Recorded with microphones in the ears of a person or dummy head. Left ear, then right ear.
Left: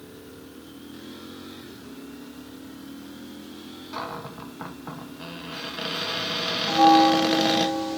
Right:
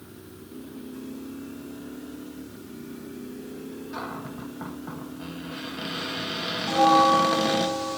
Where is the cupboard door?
20° left (ahead or behind), 0.9 m.